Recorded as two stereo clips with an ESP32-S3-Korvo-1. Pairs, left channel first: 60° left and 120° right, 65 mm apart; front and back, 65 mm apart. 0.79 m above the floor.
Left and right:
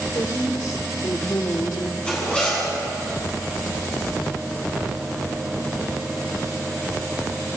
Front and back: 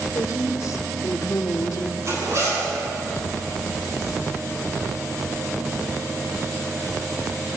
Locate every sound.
0.1 s a woman speaking: 40° left, 3 m; by 1.9 s 30° left, 1.3 m
2.0 s a zipper: 135° left, 9.5 m